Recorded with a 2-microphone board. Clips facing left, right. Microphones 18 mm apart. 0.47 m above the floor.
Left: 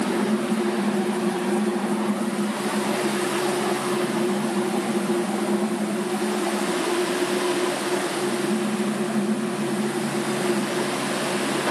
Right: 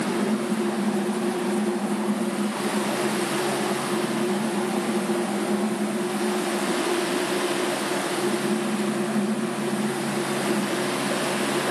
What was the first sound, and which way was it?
Only background noise.